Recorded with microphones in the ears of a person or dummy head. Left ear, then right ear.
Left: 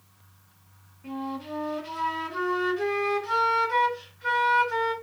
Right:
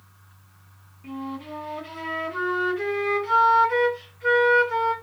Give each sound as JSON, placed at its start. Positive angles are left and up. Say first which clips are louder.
{"t": 1.0, "sound": "a flute", "louder": "even", "side_deg": -15, "distance_m": 1.5}